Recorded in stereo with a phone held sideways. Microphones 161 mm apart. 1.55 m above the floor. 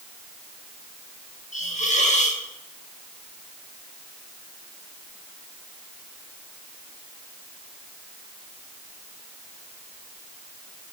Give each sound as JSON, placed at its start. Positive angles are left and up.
{"t": 1.5, "sound": "a hiss", "side_deg": 50, "distance_m": 1.3}